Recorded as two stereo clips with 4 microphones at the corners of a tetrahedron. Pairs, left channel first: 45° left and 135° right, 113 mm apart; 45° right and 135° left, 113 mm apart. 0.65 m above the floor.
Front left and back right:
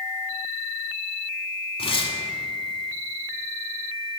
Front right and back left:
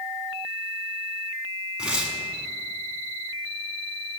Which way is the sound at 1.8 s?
55° left.